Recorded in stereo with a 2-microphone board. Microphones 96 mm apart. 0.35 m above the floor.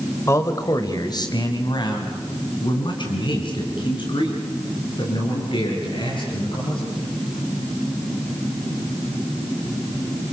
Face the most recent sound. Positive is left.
turn(degrees=55)  # may be behind; listen again after turning